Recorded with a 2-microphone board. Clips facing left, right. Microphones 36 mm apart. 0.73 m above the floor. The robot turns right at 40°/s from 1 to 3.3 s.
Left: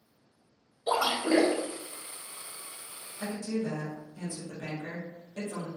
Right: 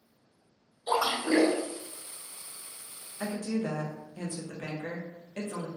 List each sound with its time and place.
0.9 s a splash: 45° left (ahead or behind), 1.2 m; by 1.6 s 25° left (ahead or behind), 1.2 m
3.2 s a woman speaking: 45° right (ahead or behind), 0.6 m